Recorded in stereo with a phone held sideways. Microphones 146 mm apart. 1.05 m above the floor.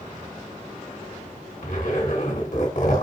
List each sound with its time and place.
1.6 s a zipper: 70° left (ahead or behind), 3 m